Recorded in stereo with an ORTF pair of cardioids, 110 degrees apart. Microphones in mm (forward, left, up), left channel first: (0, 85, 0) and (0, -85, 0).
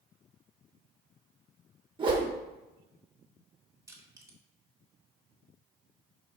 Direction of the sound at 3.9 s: 20° right.